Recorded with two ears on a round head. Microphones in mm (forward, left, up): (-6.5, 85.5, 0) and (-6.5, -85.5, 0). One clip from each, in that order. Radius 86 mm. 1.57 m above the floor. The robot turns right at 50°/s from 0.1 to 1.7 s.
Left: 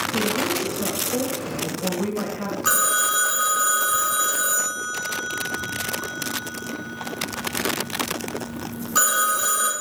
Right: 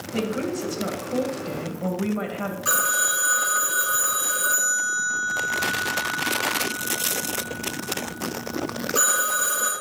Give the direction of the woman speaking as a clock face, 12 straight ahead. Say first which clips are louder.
Right 1 dB; 6 o'clock.